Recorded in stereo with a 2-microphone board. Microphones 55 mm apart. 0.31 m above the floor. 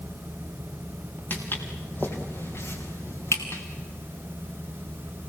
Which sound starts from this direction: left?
Footsteps, at 1.3 s.